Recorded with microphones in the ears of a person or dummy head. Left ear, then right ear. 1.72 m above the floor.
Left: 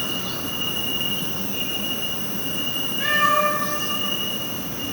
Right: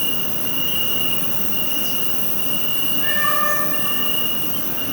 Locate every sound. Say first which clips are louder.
0.0 s an insect: right 1 dB; 50° right (ahead or behind), 1.3 m
3.0 s a cat meowing: left 3 dB; 60° left (ahead or behind), 2 m